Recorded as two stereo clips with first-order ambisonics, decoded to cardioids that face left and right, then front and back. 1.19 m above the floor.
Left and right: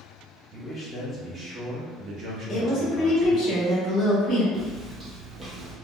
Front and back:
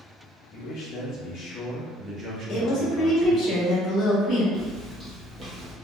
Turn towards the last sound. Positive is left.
turn(degrees=-160)